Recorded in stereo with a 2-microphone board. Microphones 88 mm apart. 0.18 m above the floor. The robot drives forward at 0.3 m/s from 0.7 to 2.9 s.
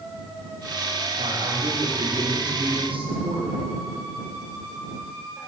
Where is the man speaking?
80° right, 8 m; by 3.6 s 75° right (ahead or behind), 8 m.